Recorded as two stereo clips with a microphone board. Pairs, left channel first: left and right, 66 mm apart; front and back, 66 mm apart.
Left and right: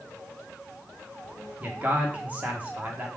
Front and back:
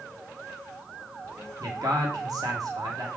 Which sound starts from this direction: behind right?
A man speaking, at 1.6 s.